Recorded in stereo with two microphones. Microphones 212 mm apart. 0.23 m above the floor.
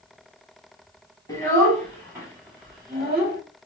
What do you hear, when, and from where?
1.3 s a child speaking: 15° left (ahead or behind), 1.2 m; by 3.4 s 45° right (ahead or behind), 1.3 m